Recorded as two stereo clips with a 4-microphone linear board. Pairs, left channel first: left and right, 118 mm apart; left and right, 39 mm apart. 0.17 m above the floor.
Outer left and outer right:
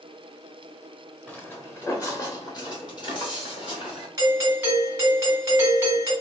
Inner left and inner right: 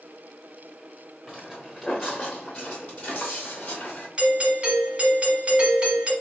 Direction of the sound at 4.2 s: 20° right (ahead or behind).